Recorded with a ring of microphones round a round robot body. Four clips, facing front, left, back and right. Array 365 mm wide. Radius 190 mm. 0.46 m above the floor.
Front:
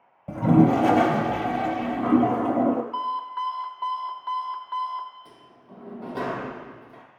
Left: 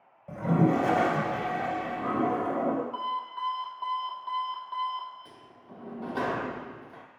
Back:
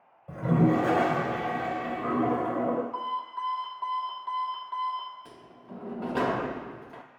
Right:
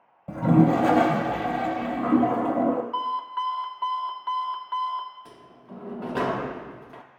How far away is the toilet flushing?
About 0.5 m.